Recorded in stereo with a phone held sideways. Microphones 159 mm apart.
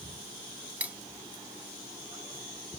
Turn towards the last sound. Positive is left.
turn(degrees=-10)  # may be behind; listen again after turning